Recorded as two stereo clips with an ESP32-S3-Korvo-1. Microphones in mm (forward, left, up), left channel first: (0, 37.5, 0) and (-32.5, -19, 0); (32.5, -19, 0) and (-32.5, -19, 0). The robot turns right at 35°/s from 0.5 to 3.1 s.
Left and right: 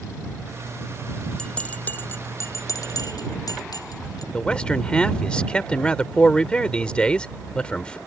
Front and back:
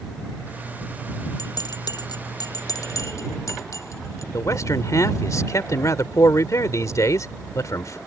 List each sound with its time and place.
1.4 s a bell: 20° right; by 4.2 s 40° left
4.3 s a man speaking: 10° right